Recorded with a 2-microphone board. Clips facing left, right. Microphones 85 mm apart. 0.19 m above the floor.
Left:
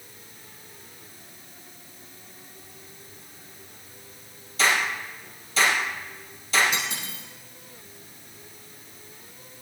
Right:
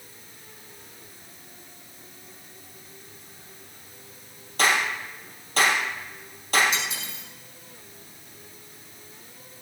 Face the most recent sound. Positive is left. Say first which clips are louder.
# even
turn(degrees=50)  # may be behind; listen again after turning